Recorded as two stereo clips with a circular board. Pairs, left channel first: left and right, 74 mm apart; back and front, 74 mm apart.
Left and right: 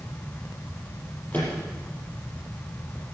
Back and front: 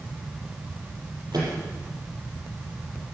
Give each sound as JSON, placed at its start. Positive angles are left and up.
{"t": 1.3, "sound": "a microwave", "azimuth_deg": 25, "distance_m": 6.5}